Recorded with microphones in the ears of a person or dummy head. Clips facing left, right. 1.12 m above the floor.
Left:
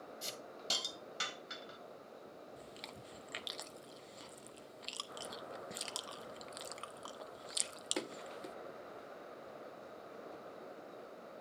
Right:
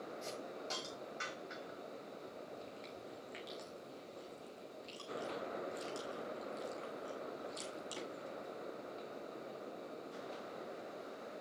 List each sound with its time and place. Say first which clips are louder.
0.2 s a hiss: right 3 dB; 40° left (ahead or behind), 1.4 m
2.6 s chewing: right 3 dB; 70° left (ahead or behind), 0.7 m